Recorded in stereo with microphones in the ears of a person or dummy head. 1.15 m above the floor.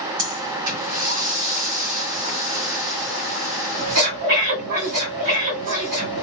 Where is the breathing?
50° right (ahead or behind), 1.5 m.